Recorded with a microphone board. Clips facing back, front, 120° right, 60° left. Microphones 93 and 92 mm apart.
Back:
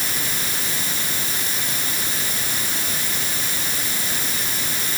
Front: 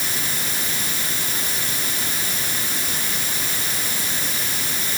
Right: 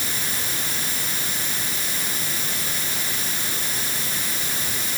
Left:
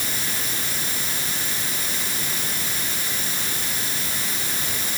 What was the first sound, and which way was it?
Only background noise.